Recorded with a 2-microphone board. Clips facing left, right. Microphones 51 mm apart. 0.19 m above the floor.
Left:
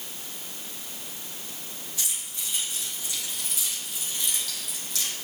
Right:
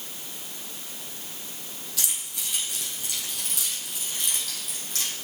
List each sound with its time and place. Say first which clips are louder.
2.0 s keys jangling: right 2 dB; 80° right, 3.5 m; by 5.1 s 45° right (ahead or behind), 4 m